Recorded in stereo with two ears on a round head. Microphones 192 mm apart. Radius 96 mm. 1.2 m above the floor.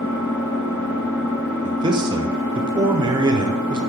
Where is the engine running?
50° left (ahead or behind), 1.1 m.